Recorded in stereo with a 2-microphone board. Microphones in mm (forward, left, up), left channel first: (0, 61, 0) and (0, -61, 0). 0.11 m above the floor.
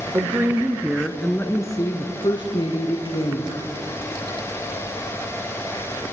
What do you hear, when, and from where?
0.1 s a woman speaking: 25° right (ahead or behind), 2 m; by 3.8 s 55° left (ahead or behind), 4 m